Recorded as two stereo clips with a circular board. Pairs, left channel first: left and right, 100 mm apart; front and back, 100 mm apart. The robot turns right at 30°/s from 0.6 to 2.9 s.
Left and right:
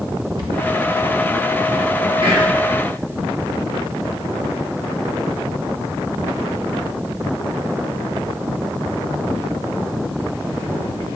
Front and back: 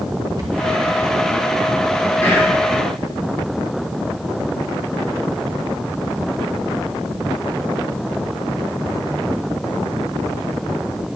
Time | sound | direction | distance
0.4 | a cupboard door | 130° right | 1.5 m
2.2 | whispering | 65° right | 2 m